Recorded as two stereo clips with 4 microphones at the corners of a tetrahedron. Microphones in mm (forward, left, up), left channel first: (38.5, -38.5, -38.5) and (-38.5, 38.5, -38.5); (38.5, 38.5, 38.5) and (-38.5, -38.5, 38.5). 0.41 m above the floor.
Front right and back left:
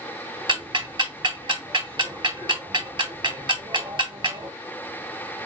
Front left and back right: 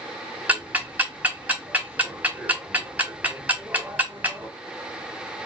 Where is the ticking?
150° left, 1.9 m.